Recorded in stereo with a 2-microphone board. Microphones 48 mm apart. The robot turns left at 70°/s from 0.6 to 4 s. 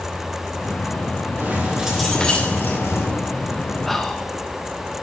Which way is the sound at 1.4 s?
135° right.